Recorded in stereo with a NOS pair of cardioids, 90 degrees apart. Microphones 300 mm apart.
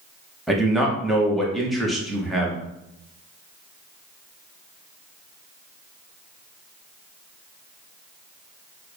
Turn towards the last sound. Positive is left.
turn(degrees=0)